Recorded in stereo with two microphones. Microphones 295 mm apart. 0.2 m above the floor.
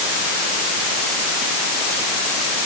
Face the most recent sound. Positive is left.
No sound to turn to.